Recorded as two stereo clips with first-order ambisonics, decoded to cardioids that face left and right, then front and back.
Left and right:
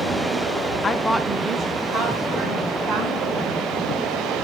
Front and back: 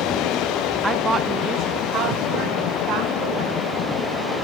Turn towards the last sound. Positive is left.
turn(degrees=-130)